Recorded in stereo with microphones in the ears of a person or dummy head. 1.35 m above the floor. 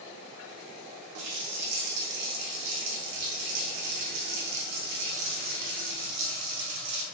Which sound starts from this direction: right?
A running tap, at 1.1 s.